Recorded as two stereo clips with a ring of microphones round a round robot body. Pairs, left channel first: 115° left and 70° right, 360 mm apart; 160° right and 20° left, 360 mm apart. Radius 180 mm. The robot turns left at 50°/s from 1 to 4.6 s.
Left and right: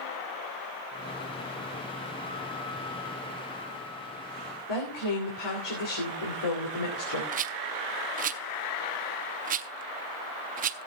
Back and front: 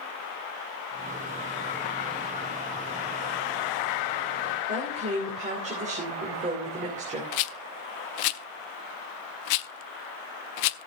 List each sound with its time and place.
4.7 s a woman speaking: 95° left, 3 m
7.3 s a rattle: 135° right, 0.5 m